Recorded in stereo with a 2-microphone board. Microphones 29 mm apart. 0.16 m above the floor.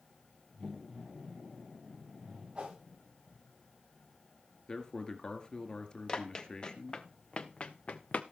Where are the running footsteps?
35° left (ahead or behind), 1.9 m; by 8.2 s 65° left (ahead or behind), 0.9 m.